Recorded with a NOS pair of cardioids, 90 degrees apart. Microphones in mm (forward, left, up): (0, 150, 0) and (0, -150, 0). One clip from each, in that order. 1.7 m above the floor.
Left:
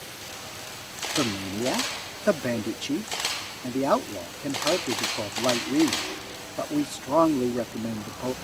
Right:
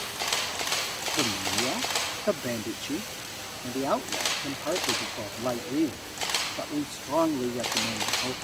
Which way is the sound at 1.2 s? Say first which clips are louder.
Right 1 dB; 35° left.